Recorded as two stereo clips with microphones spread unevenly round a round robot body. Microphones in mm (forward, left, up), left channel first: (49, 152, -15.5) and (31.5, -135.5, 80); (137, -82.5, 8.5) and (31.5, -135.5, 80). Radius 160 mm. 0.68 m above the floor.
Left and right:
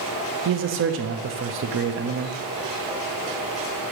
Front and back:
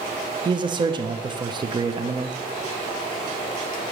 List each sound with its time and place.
0.5 s a man speaking: 60° right, 0.6 m